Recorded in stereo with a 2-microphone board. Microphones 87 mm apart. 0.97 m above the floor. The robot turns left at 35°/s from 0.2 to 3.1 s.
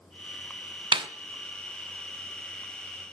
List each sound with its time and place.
0.9 s a snare drum: 65° right (ahead or behind), 0.5 m; by 1.1 s 70° right (ahead or behind), 0.5 m